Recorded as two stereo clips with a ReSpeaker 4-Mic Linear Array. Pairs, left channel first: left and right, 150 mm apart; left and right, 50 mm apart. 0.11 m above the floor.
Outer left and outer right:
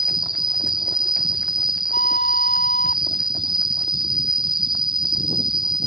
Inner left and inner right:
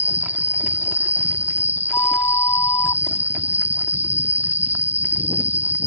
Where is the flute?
85° left.